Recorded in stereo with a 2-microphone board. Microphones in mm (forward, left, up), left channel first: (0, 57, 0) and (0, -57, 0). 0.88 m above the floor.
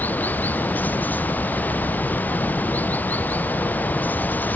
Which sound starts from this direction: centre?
Running water, at 0.0 s.